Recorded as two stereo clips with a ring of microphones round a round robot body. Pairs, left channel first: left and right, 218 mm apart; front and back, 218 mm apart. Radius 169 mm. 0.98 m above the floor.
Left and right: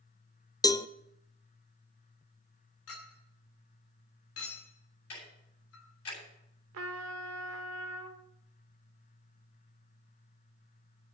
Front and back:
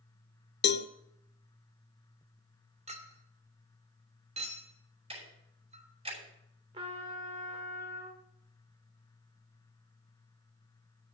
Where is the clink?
120° left, 2 m.